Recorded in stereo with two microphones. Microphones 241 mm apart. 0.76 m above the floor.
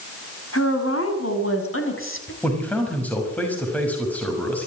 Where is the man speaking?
5° left (ahead or behind), 6 m.